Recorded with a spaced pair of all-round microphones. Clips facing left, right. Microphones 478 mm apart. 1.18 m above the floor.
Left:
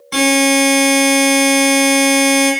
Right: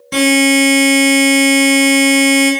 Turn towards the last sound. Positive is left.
turn(degrees=-45)  # may be behind; listen again after turning